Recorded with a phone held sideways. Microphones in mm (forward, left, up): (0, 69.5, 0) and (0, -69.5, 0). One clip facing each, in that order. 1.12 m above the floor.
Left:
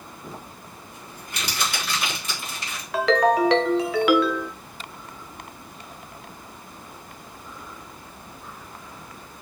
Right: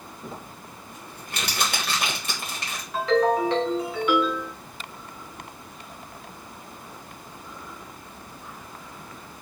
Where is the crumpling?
65° right (ahead or behind), 2.0 m.